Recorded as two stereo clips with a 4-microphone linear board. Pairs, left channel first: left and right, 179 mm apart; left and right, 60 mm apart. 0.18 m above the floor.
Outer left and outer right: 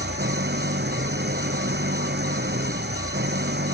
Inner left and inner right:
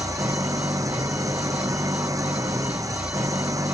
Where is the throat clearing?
No throat clearing in this recording.